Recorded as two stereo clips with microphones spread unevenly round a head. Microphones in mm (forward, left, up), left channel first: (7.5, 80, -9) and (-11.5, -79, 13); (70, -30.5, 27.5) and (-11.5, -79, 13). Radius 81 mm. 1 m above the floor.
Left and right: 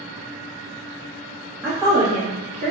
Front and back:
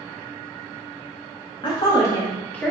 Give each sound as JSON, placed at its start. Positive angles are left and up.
{"t": 1.6, "sound": "a woman speaking", "azimuth_deg": -15, "distance_m": 1.3}